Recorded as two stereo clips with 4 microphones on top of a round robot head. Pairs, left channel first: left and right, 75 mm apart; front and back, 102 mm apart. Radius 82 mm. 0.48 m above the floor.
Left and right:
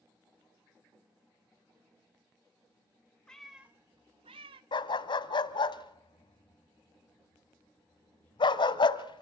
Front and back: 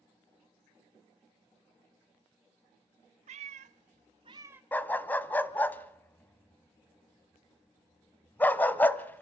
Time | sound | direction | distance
3.3 | a cat meowing | 175° left | 0.7 m
4.7 | a dog barking | 75° left | 1.0 m